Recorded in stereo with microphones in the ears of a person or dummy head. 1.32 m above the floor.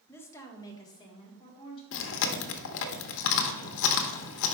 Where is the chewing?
65° left (ahead or behind), 0.8 m.